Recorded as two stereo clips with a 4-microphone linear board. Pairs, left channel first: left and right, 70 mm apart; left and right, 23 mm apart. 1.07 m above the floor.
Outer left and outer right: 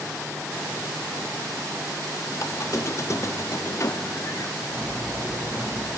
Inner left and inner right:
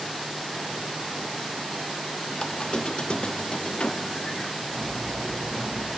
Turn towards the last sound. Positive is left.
turn(degrees=25)  # may be behind; listen again after turning